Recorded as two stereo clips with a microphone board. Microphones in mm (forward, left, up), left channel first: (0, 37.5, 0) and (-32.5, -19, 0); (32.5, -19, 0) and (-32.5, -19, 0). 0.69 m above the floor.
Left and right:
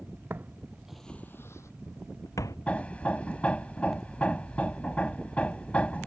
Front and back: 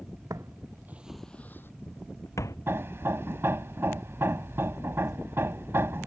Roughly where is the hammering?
Behind left.